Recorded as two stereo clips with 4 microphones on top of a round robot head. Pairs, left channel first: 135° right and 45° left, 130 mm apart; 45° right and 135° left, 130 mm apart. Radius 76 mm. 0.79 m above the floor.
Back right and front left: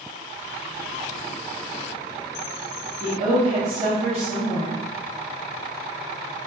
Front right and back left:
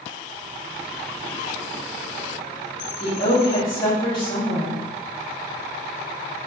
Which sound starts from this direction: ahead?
A woman speaking, at 3.0 s.